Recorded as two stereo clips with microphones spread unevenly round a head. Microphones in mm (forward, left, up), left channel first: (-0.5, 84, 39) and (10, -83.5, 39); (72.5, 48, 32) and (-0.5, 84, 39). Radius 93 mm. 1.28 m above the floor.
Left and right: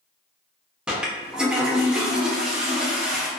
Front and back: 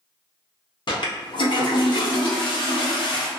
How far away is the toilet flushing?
About 0.7 m.